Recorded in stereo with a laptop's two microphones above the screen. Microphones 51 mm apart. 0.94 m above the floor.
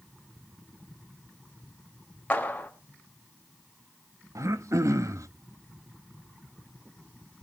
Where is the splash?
I don't hear a splash.